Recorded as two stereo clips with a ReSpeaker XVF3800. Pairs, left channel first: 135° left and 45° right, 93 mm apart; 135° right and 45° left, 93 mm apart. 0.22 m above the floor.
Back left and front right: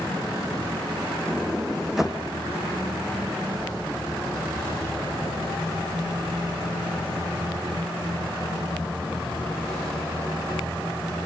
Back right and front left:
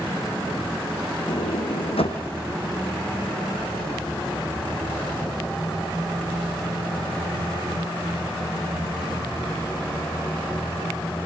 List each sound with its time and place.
1.3 s a sliding door: 130° right, 3 m